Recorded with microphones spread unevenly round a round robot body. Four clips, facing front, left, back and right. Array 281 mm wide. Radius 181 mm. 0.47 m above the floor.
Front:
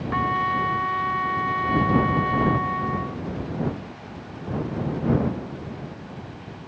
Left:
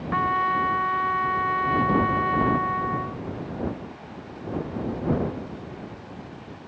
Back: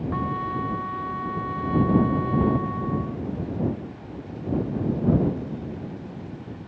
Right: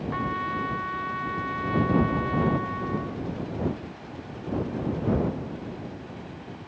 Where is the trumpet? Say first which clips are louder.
Left 8 dB, front 7 dB; 50° left.